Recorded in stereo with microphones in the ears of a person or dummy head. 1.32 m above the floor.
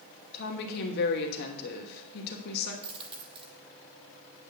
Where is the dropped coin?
30° right (ahead or behind), 1.5 m.